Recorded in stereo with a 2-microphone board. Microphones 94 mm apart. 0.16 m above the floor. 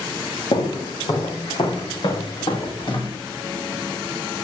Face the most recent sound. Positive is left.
turn(degrees=60)  # may be behind; listen again after turning